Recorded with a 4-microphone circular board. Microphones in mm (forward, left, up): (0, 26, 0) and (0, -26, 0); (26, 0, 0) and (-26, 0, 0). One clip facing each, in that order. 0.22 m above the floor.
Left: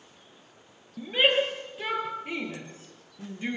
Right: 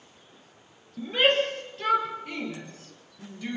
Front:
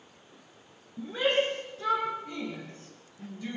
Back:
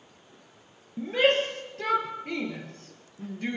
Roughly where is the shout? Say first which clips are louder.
Right 1 dB, back 4 dB; behind.